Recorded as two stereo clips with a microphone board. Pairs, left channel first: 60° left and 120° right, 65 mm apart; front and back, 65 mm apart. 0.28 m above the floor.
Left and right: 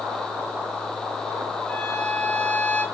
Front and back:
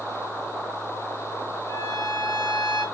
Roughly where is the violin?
Ahead.